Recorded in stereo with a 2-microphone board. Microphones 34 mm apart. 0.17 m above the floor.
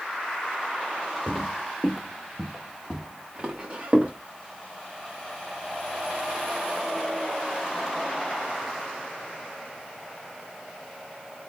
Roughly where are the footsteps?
Centre.